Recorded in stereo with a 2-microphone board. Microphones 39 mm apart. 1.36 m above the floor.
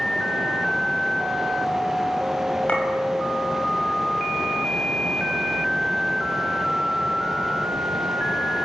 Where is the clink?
35° left (ahead or behind), 6.5 m.